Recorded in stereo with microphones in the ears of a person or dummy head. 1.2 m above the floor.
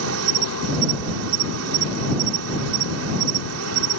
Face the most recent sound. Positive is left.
turn(degrees=-80)